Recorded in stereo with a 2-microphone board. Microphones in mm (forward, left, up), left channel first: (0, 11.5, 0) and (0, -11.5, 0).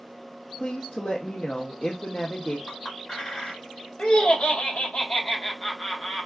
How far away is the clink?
About 1.8 m.